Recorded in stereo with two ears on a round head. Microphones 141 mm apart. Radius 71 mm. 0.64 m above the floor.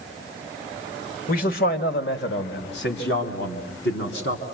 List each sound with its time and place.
1.3 s a man speaking: 60° left (ahead or behind), 2 m; by 4.4 s 85° left, 5 m